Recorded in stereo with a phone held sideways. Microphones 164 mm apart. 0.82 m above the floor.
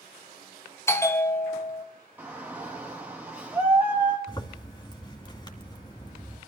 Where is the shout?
10° right (ahead or behind), 0.9 m.